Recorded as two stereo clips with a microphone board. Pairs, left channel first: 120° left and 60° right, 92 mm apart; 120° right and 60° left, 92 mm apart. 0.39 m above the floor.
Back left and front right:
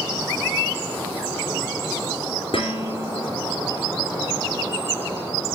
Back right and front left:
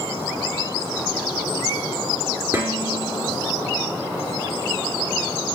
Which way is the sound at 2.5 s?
125° left.